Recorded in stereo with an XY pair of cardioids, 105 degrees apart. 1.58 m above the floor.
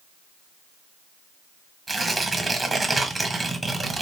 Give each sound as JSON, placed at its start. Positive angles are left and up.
{"t": 1.9, "sound": "tearing paper", "azimuth_deg": -15, "distance_m": 1.2}